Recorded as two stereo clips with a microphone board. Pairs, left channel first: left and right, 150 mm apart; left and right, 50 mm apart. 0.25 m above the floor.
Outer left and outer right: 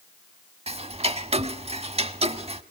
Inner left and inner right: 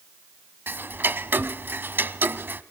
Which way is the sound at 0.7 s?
45° right (ahead or behind).